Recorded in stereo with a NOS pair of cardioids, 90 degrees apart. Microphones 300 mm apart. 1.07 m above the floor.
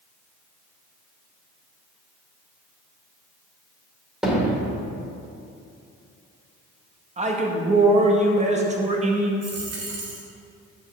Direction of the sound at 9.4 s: 55° right.